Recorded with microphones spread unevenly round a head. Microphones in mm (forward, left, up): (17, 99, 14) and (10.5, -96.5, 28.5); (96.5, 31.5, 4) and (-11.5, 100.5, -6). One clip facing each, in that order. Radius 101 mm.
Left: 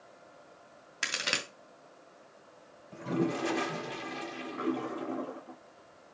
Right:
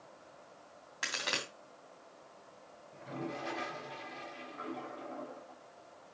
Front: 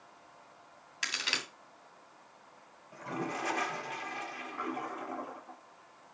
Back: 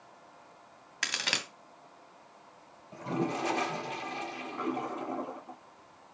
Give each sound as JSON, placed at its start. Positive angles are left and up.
{"t": 1.0, "sound": "a crack", "azimuth_deg": 140, "distance_m": 2.0}
{"t": 2.9, "sound": "a toilet flushing", "azimuth_deg": 85, "distance_m": 0.8}